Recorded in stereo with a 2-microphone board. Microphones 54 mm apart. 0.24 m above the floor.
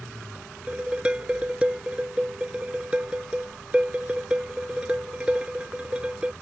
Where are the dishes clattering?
20° right (ahead or behind).